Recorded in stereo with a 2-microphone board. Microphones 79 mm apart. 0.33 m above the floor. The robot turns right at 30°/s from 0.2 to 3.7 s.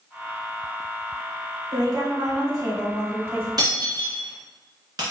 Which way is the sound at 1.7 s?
90° right.